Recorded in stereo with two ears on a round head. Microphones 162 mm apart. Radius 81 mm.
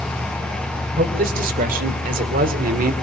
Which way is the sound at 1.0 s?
50° right (ahead or behind).